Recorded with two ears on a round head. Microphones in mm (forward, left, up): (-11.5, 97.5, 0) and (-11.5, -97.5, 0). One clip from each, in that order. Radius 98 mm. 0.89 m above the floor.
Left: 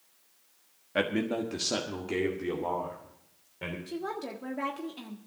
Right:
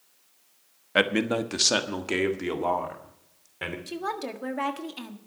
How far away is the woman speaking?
About 1.4 m.